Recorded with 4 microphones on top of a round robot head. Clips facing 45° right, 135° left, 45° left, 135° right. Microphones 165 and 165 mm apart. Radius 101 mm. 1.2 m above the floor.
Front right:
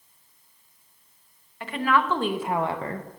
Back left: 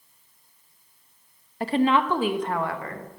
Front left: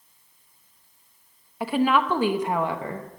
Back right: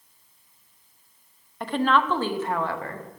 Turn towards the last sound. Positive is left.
turn(degrees=-20)